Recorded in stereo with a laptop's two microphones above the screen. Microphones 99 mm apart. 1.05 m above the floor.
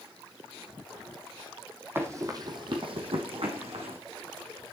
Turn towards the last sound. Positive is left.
turn(degrees=-70)  # may be behind; listen again after turning